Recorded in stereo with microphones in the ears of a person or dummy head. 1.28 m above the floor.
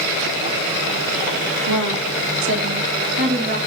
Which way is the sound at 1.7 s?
85° right.